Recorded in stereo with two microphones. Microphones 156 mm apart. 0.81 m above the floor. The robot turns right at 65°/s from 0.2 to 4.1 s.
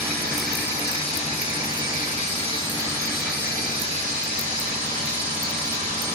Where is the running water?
15° right, 1.2 m; by 6.2 s 120° right, 1.2 m.